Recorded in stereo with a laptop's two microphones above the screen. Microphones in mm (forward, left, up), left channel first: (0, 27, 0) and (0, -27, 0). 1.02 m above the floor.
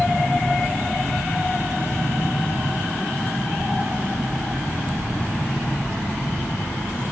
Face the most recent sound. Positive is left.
turn(degrees=45)  # may be behind; listen again after turning